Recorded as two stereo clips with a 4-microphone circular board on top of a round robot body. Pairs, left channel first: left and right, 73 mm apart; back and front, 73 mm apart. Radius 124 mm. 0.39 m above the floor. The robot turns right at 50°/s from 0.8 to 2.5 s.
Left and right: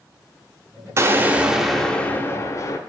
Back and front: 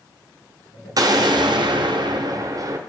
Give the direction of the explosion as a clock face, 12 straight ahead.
1 o'clock.